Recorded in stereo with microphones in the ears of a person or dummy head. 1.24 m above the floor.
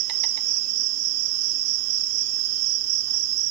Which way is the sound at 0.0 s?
55° right (ahead or behind).